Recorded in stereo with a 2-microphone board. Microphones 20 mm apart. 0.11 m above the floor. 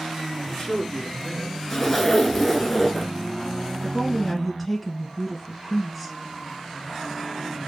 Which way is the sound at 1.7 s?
10° left (ahead or behind).